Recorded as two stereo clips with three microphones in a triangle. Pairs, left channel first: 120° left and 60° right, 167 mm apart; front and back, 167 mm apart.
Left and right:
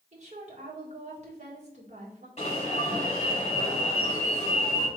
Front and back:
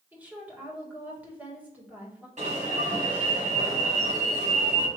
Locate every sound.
0.1 s a woman speaking: 100° right, 1.5 m
2.4 s an alarm: 155° left, 1.5 m